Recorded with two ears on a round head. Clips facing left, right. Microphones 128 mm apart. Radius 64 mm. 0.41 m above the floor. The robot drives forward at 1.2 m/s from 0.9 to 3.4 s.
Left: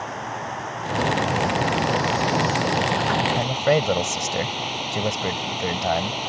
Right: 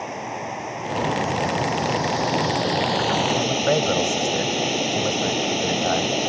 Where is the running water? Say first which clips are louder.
Right 1 dB; 20° right (ahead or behind); by 6.3 s 55° right (ahead or behind).